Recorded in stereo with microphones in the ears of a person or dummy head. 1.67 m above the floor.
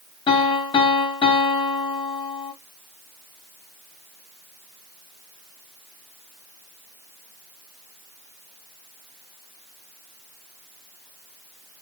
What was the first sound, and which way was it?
A piano, 25° left (ahead or behind).